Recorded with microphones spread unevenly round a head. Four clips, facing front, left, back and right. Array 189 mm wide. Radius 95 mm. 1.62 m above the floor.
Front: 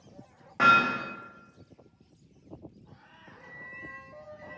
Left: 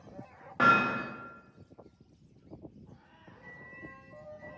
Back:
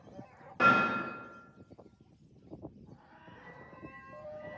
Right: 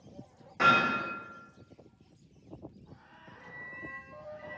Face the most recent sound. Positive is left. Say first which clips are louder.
# right 3 dB, front 4 dB
turn(degrees=-45)